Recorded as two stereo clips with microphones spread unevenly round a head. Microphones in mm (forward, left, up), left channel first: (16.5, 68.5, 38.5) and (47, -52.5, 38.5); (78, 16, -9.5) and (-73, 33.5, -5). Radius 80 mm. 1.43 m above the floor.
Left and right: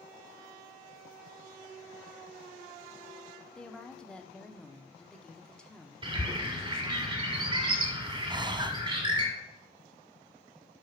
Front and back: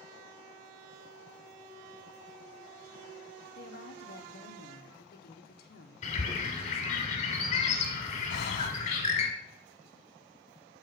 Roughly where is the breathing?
Ahead.